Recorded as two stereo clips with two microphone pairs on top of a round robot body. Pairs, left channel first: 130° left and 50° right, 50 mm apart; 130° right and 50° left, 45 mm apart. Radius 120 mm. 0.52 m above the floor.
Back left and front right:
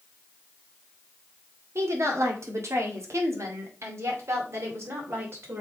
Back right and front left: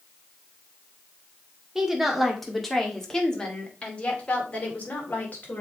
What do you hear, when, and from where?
1.8 s a woman speaking: 40° right, 1.9 m; by 5.6 s 90° right, 3 m